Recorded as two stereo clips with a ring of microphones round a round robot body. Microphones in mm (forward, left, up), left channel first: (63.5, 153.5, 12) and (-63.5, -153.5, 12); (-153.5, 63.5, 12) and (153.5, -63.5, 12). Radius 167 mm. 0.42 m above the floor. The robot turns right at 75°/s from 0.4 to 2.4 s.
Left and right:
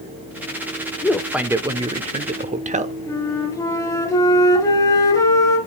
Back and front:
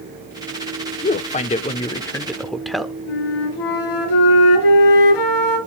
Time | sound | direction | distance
1.0 | a man speaking | 145° left | 0.7 m
3.1 | a flute | 150° left | 2.5 m